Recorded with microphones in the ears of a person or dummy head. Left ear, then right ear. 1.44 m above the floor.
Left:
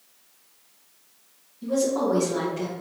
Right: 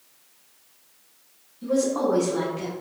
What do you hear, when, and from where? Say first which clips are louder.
1.6 s a woman speaking: right 1 dB; 35° right (ahead or behind), 1.0 m; by 2.7 s 60° left (ahead or behind), 1.1 m